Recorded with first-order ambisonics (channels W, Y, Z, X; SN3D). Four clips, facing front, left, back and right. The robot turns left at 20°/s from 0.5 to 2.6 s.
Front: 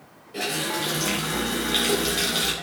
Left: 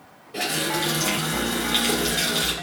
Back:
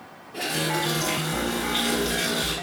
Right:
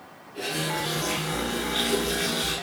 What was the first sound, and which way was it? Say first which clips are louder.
A running tap: left 4 dB, back 1 dB; 75° left.